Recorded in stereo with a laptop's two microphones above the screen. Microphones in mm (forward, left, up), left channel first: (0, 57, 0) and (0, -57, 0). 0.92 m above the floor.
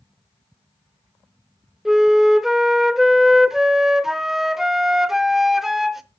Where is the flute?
5° right (ahead or behind), 0.6 m.